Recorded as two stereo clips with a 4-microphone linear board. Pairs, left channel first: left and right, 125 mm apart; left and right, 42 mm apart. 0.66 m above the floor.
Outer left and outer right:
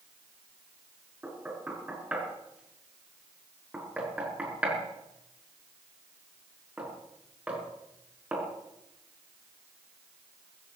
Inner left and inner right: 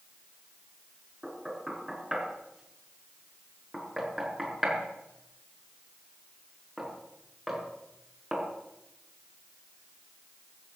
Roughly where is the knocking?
Centre.